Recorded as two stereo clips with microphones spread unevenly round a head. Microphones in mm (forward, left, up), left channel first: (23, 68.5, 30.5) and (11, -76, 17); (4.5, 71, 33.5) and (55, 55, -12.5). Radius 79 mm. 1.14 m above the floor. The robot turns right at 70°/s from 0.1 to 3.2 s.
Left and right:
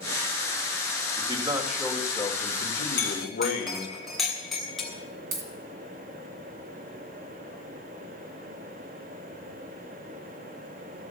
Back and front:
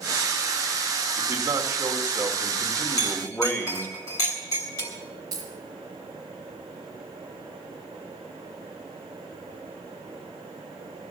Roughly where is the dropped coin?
Right.